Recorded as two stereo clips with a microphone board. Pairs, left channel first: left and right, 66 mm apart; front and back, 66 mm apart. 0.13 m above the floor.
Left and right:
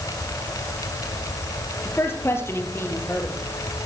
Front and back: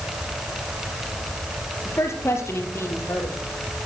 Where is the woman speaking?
40° left, 2.5 m.